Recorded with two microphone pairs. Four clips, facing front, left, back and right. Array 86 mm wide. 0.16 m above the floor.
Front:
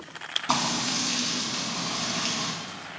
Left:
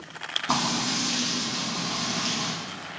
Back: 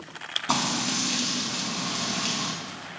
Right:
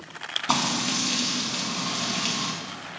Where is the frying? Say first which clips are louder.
Right 1 dB, even; 90° right, 0.6 m.